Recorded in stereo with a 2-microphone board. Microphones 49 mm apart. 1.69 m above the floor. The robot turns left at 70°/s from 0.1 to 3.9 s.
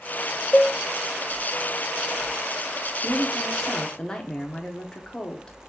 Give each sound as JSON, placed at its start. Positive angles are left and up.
{"t": 0.5, "sound": "a cowbell", "side_deg": 25, "distance_m": 0.6}
{"t": 3.0, "sound": "a woman speaking", "azimuth_deg": -135, "distance_m": 1.0}